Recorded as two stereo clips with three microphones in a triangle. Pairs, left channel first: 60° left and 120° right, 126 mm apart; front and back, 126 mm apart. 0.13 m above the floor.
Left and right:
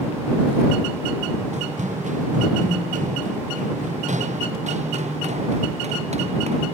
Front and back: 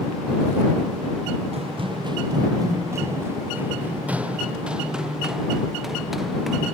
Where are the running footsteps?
145° right; by 6.7 s 90° right.